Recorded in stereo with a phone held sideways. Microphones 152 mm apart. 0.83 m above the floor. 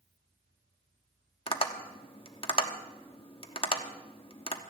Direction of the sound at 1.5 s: 35° left (ahead or behind).